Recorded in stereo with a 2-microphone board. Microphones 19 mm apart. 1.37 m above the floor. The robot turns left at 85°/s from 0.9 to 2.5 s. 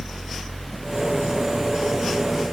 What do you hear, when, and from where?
Only background noise.